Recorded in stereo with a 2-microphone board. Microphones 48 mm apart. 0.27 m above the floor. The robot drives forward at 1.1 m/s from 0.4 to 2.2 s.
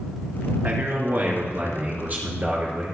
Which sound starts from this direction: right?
A man speaking, at 0.6 s.